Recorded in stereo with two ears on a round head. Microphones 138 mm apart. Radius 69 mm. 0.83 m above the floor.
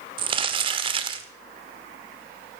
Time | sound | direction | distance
0.2 | crumpling | 35° right (ahead or behind) | 1.3 m